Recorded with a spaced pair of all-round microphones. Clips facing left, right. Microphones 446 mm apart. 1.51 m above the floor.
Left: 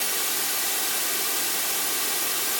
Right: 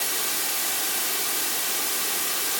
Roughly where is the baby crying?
No baby crying in this recording.